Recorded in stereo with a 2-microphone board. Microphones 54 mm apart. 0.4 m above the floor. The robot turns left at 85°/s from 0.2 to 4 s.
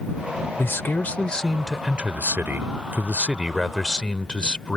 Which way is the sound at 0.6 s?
85° left.